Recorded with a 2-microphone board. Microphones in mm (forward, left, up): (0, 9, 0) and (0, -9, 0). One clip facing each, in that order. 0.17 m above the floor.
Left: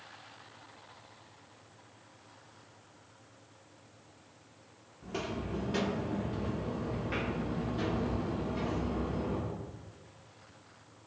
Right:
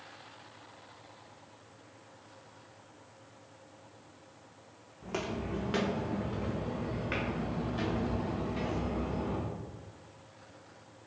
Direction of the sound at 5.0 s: 35° right (ahead or behind).